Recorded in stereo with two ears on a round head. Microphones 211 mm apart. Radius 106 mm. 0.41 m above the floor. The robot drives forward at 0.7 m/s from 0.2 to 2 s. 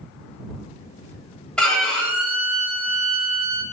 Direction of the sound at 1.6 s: 5° left (ahead or behind).